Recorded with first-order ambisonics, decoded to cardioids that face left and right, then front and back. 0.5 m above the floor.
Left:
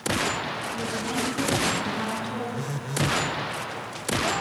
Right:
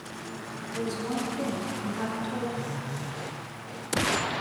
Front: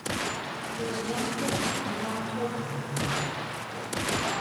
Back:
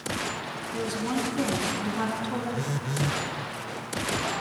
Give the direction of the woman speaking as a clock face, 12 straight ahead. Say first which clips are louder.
Right 2 dB, back 2 dB; 6 o'clock.